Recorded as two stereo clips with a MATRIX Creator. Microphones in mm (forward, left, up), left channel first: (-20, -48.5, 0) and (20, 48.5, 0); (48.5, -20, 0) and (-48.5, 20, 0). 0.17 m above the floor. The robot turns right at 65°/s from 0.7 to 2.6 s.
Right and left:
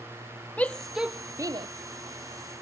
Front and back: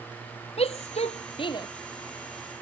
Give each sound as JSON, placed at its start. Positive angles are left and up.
{"t": 0.6, "sound": "a shout", "azimuth_deg": -35}